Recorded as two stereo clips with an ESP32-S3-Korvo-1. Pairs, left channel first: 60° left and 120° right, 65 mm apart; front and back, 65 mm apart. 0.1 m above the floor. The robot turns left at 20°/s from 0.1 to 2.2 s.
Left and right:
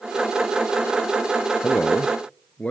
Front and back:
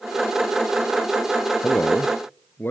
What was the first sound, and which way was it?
A man speaking, 20° left.